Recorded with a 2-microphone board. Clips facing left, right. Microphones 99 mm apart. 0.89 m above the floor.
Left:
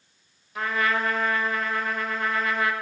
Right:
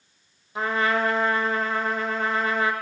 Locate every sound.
0.6 s a trumpet: 25° right (ahead or behind), 1.0 m